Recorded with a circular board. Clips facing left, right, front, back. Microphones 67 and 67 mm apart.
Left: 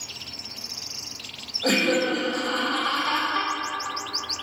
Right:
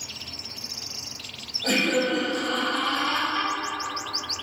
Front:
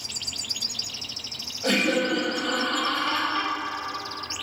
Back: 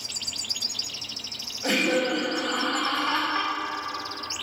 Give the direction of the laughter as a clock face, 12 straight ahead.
9 o'clock.